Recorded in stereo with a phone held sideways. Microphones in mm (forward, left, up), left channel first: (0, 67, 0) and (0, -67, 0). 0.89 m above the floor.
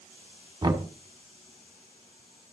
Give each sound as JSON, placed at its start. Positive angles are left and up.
{"t": 0.6, "sound": "knocking", "side_deg": -30, "distance_m": 1.8}